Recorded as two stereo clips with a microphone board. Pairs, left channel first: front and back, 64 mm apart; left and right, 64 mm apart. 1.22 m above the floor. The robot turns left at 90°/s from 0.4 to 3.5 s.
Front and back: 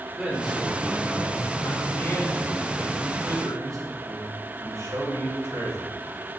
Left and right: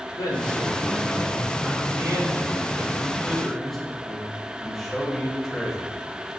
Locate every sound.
0.2 s a man speaking: 95° left, 4 m; by 6.0 s straight behind, 4 m